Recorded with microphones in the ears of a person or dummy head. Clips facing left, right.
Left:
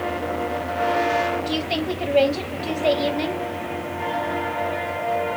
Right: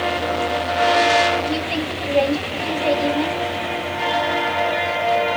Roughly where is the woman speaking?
Left.